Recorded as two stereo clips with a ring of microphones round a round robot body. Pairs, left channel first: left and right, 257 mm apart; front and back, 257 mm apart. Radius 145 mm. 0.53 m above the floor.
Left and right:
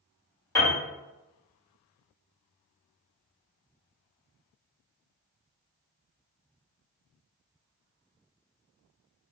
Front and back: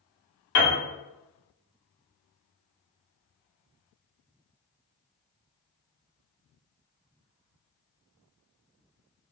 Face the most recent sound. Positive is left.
turn(degrees=10)